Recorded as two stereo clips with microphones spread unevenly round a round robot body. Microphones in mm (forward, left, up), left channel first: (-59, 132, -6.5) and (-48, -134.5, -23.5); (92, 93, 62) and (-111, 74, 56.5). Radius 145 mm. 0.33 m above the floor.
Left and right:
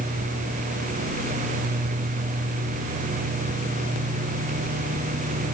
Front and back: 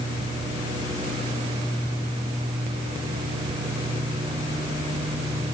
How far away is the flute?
I don't hear a flute.